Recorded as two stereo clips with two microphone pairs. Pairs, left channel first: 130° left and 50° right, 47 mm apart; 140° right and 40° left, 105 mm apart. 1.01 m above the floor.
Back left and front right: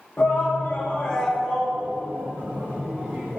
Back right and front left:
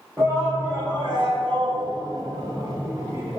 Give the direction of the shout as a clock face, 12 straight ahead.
9 o'clock.